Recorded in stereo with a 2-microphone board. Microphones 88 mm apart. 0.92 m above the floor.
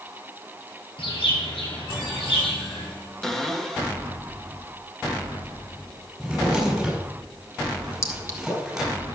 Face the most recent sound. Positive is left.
turn(degrees=35)  # may be behind; listen again after turning